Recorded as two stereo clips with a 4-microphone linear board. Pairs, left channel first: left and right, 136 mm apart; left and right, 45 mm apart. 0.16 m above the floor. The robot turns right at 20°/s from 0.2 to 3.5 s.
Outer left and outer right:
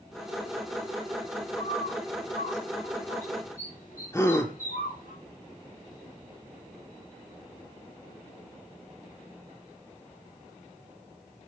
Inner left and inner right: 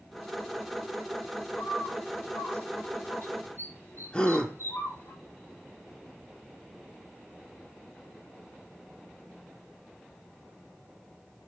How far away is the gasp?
About 2 m.